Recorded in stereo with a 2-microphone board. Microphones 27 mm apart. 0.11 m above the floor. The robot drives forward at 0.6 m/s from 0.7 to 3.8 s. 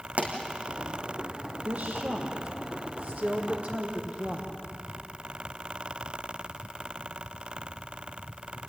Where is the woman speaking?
65° right (ahead or behind), 4.5 m; by 4.5 s 55° right (ahead or behind), 5 m.